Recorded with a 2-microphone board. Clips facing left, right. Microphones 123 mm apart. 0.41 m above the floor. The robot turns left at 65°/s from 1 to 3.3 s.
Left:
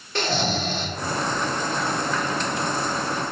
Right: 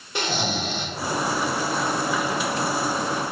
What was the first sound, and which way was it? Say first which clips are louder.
Snoring: left 2 dB; 15° right (ahead or behind).